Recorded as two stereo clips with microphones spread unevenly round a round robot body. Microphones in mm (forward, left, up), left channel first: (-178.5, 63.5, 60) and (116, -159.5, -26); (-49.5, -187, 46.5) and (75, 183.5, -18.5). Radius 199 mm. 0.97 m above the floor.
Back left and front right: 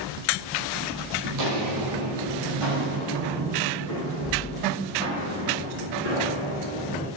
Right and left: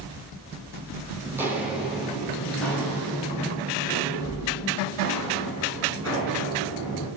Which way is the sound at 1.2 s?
20° right.